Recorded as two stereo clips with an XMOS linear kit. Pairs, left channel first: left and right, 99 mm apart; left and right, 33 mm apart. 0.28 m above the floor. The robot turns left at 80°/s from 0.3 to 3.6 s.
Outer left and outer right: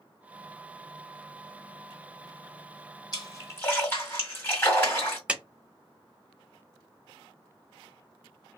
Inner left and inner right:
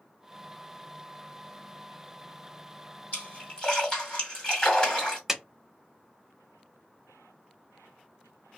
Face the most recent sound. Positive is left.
turn(degrees=-10)  # may be behind; listen again after turning